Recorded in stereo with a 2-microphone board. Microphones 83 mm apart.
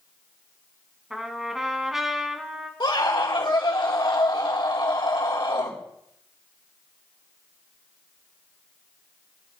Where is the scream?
65° left (ahead or behind), 4 m.